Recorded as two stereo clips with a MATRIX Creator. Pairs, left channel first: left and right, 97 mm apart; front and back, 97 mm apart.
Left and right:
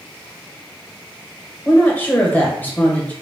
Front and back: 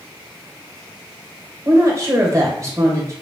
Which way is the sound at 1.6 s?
150° left.